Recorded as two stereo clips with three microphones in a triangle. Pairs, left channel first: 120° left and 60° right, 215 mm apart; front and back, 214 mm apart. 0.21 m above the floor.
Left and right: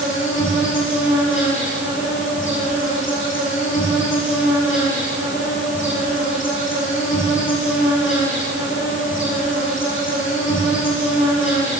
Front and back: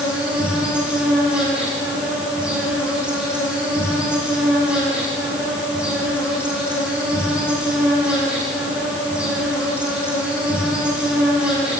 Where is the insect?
95° left, 9.5 m.